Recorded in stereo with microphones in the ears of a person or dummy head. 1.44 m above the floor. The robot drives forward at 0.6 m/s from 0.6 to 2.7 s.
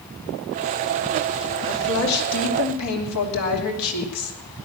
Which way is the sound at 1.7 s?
85° left.